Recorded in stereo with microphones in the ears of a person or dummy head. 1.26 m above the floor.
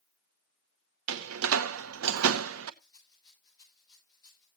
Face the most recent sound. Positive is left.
turn(degrees=20)  # may be behind; listen again after turning